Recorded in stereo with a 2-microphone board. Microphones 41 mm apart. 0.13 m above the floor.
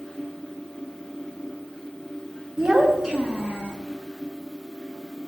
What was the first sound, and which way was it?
A child speaking, 10° right (ahead or behind).